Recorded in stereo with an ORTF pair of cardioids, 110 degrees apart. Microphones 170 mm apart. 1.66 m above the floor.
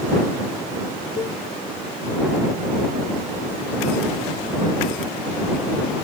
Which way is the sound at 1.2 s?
35° left.